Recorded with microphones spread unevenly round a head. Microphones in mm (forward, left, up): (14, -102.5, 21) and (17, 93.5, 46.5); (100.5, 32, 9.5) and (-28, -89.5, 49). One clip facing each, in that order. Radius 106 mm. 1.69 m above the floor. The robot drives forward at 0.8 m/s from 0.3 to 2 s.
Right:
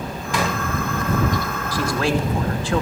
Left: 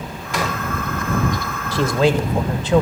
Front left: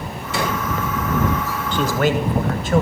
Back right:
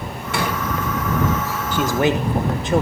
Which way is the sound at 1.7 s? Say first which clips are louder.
Left 5 dB, even; 150° left.